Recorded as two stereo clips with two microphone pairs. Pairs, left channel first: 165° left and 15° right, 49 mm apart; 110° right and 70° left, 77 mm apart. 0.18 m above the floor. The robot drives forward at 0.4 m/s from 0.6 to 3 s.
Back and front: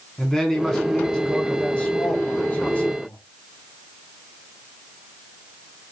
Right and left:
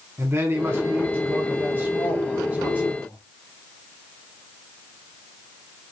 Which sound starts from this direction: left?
A man speaking, at 0.2 s.